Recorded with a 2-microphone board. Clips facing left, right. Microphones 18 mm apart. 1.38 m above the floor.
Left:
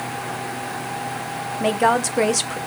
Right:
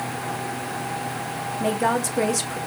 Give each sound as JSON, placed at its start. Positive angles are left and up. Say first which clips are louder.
{"t": 1.6, "sound": "a woman speaking", "louder": "left 4 dB", "side_deg": 35, "distance_m": 0.5}